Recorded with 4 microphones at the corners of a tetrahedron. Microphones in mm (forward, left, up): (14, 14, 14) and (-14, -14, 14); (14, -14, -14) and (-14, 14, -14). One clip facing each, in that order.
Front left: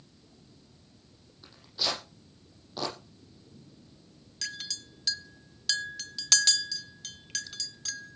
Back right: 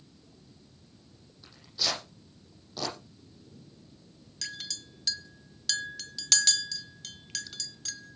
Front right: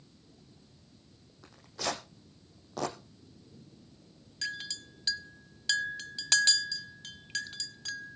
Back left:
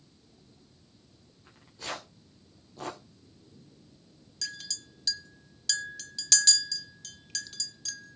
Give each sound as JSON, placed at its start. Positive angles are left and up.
{"t": 1.4, "sound": "tearing paper", "azimuth_deg": -35, "distance_m": 8.5}
{"t": 4.4, "sound": "a clink", "azimuth_deg": -45, "distance_m": 1.1}